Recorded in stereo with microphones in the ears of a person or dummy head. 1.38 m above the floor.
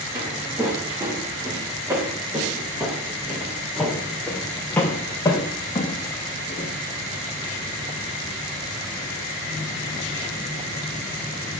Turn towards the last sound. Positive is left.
turn(degrees=35)  # may be behind; listen again after turning